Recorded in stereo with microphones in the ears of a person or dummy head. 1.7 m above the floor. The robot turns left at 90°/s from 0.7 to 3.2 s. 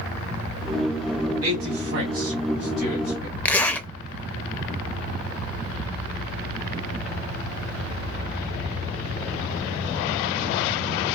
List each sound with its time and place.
1.4 s a man speaking: 80° right, 1.7 m; by 3.4 s 65° left (ahead or behind), 1.7 m
3.5 s a zipper: 5° left (ahead or behind), 0.5 m